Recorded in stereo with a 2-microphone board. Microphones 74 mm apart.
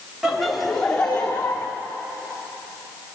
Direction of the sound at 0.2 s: 5° right (ahead or behind).